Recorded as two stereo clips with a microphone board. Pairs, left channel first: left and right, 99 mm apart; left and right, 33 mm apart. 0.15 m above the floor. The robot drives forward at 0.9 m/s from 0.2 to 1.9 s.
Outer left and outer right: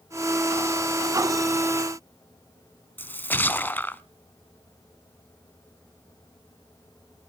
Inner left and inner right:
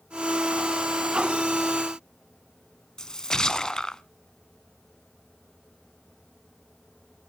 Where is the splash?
20° left (ahead or behind), 0.6 m.